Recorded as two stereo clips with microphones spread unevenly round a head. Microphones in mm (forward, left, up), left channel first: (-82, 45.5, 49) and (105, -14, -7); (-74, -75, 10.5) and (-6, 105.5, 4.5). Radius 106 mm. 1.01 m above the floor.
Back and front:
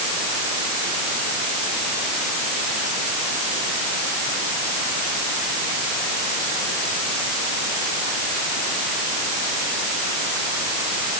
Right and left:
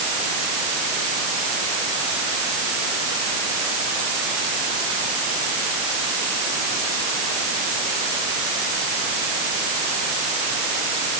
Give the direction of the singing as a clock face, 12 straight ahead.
No singing in this recording.